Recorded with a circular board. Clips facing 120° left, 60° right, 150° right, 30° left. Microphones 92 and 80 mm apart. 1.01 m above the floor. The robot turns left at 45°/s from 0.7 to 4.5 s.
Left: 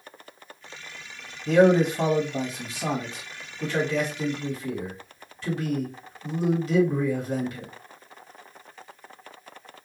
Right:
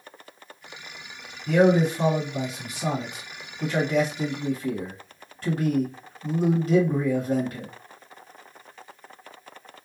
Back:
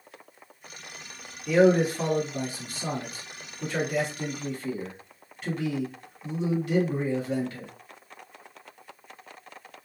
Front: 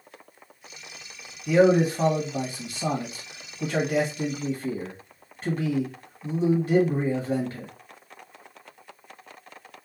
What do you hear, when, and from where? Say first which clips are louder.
1.5 s a man speaking: left 1 dB, front 1 dB; 115° left, 1.5 m; by 7.7 s 20° right, 1.5 m